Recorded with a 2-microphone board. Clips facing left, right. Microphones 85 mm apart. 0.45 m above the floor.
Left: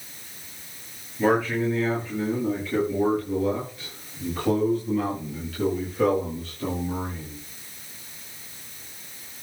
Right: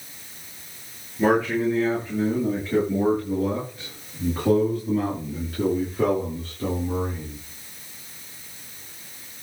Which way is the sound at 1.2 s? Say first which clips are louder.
Right 2 dB; 15° right (ahead or behind).